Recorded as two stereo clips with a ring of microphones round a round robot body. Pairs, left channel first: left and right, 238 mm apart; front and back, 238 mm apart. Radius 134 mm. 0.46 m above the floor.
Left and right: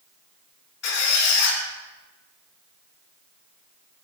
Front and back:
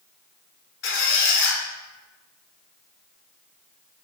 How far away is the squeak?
About 1.5 m.